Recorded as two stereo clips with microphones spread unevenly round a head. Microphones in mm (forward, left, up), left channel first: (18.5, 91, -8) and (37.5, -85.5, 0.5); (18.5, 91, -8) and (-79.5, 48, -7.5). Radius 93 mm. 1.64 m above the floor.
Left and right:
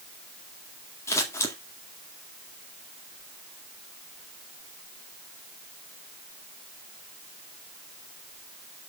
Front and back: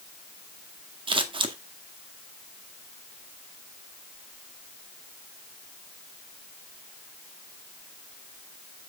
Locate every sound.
1.1 s scissors: 175° left, 1.9 m